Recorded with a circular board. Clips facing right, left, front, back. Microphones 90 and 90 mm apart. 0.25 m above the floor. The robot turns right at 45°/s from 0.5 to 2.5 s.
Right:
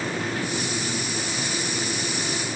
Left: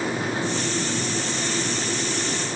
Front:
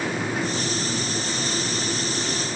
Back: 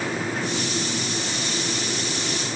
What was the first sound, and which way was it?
Only background noise.